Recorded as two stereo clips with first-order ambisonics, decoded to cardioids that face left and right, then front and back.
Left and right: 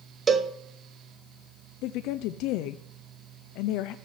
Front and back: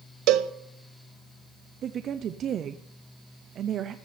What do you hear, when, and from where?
0.3 s a cowbell: 155° right, 0.8 m
1.8 s a woman speaking: 120° left, 0.6 m